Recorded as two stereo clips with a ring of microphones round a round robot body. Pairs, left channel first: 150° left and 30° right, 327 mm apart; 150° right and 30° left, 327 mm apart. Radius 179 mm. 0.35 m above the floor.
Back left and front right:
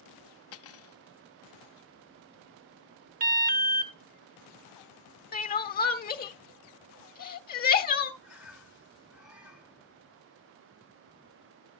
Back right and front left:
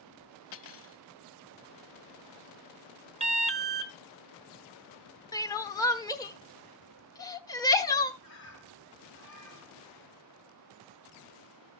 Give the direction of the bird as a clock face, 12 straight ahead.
4 o'clock.